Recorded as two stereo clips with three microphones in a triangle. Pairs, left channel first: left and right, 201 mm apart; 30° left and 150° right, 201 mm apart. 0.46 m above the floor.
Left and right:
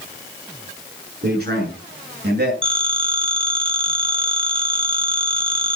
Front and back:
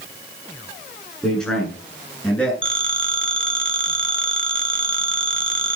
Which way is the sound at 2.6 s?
155° right.